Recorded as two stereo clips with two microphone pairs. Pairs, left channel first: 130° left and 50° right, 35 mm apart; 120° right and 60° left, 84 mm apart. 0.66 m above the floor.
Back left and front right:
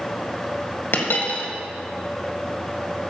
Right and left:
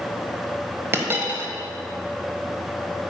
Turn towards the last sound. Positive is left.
turn(degrees=120)